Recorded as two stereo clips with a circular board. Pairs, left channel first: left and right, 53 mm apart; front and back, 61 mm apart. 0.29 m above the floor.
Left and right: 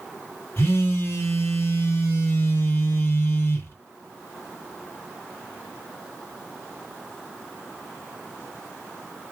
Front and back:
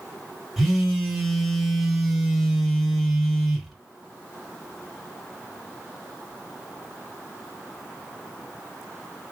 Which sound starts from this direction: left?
A phone buzzing, at 0.6 s.